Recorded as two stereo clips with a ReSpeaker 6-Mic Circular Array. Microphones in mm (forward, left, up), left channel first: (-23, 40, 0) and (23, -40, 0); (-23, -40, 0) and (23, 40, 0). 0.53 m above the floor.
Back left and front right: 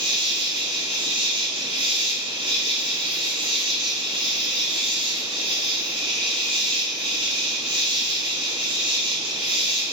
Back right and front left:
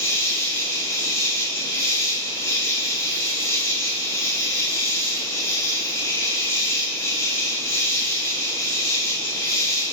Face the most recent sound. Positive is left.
turn(degrees=-60)